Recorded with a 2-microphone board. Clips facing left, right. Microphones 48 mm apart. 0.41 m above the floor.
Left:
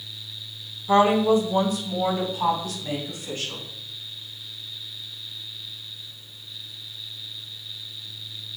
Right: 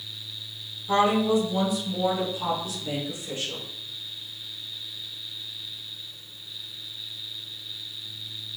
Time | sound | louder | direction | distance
0.9 | a woman speaking | left 4 dB | 20° left (ahead or behind) | 1.0 m